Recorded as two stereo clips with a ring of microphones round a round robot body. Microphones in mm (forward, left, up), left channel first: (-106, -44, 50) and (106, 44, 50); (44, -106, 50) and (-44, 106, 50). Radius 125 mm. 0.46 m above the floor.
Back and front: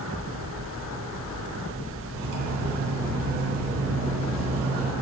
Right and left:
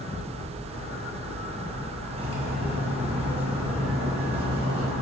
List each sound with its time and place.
2.1 s cutlery clinking: 45° left, 2 m